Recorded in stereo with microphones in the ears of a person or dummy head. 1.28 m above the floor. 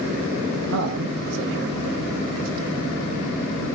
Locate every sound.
0.7 s a man speaking: 70° right (ahead or behind), 1.5 m; by 3.0 s 35° right (ahead or behind), 1.8 m